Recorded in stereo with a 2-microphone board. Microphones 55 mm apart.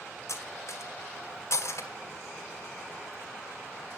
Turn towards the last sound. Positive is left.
turn(degrees=60)  # may be behind; listen again after turning